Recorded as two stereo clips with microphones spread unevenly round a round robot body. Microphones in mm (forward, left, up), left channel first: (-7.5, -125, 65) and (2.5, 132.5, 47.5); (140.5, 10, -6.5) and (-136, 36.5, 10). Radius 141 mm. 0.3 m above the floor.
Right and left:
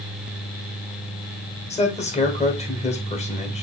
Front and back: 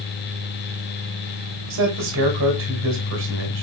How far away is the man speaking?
About 1.4 m.